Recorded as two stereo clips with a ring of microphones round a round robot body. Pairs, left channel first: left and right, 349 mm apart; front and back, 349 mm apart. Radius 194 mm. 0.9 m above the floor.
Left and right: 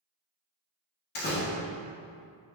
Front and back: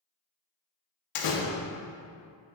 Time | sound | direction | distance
1.1 | a door slam | 25° left | 1.4 m